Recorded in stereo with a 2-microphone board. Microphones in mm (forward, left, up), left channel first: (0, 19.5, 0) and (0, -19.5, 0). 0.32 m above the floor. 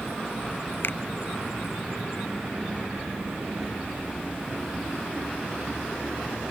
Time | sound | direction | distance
0.8 | a finger snap | 65° left (ahead or behind) | ?